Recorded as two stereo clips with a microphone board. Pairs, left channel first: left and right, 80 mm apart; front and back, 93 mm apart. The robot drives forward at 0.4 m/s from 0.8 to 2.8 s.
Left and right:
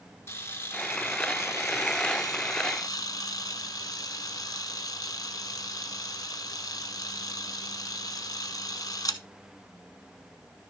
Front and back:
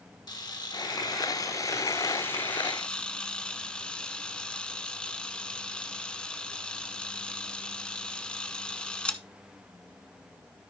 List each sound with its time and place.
0.3 s a camera shutter: 35° left, 1.3 m; by 9.2 s 75° left, 0.8 m